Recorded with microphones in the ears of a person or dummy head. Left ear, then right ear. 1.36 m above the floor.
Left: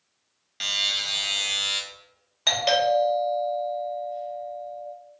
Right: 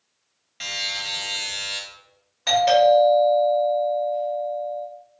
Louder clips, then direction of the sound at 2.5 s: Right 5 dB; 30° left (ahead or behind).